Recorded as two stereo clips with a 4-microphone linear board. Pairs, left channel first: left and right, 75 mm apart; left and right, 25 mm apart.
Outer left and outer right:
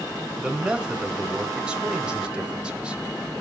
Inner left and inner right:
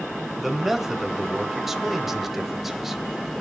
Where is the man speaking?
10° right (ahead or behind), 1.1 m.